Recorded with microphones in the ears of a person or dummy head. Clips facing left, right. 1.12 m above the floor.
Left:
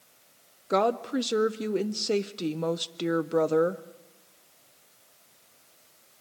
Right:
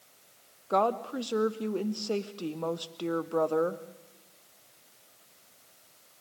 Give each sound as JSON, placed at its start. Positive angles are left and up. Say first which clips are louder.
{"t": 0.7, "sound": "a woman speaking", "louder": "left 3 dB", "side_deg": 25, "distance_m": 0.6}